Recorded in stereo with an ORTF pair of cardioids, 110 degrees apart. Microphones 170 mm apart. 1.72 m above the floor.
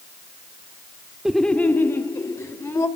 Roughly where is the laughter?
Ahead.